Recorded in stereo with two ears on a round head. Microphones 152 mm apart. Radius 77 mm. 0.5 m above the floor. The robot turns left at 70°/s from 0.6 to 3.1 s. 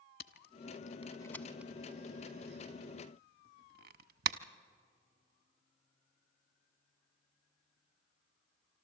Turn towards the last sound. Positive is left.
turn(degrees=-60)  # may be behind; listen again after turning